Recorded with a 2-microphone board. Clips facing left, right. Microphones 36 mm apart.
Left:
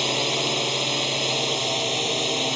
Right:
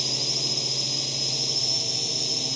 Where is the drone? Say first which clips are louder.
Left 8 dB; 50° left (ahead or behind).